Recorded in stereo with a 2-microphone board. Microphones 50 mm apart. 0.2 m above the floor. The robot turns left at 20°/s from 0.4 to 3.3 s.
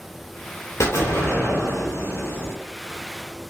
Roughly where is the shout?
No shout in this recording.